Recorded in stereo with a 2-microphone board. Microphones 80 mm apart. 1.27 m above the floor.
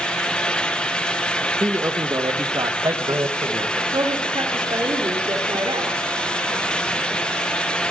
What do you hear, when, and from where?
1.6 s a man speaking: 45° right (ahead or behind), 1.6 m; by 3.8 s 75° right (ahead or behind), 1.6 m
3.9 s a woman speaking: 85° right, 3 m